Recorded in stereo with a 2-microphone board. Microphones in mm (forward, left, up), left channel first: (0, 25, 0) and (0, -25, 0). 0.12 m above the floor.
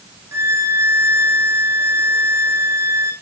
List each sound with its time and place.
0.3 s a violin: 60° right (ahead or behind), 2.5 m